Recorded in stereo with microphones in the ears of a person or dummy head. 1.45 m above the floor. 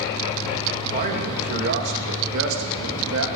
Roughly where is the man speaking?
Right.